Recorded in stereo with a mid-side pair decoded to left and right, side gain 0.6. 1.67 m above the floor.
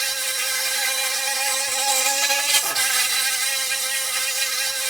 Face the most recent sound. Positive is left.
turn(degrees=-10)